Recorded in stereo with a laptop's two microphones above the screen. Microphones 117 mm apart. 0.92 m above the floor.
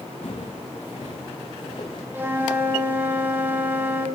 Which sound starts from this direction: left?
Footsteps, at 0.2 s.